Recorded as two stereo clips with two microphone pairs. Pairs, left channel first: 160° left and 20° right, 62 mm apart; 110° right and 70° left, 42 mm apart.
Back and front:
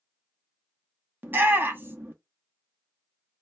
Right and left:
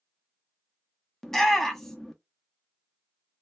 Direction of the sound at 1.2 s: 40° right.